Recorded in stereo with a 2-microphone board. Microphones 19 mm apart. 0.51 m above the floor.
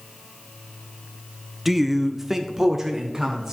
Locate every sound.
1.6 s a man speaking: 5° right (ahead or behind), 0.7 m; by 3.5 s 25° right (ahead or behind), 1.4 m